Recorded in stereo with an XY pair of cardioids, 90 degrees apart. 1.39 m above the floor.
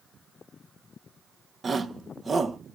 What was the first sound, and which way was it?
A shout, 35° right.